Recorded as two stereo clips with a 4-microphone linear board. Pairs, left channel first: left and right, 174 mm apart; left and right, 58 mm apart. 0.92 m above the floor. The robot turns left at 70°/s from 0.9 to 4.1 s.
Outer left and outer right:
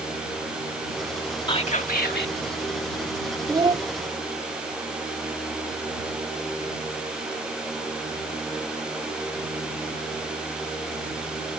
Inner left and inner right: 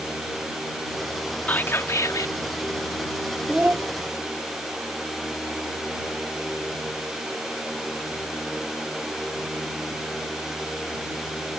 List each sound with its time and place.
1.5 s whispering: 150° left; by 2.3 s 90° left
3.5 s a child speaking: 20° right (ahead or behind); by 3.9 s 45° right (ahead or behind)